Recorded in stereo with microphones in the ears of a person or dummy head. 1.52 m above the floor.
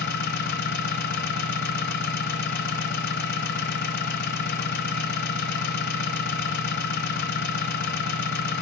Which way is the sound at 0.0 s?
55° left (ahead or behind).